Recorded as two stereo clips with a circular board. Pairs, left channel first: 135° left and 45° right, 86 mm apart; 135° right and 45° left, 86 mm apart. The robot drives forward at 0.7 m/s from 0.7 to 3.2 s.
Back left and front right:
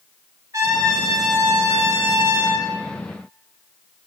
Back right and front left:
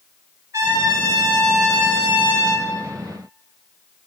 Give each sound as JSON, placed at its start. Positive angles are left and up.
{"t": 0.5, "sound": "a trumpet", "azimuth_deg": 0, "distance_m": 2.5}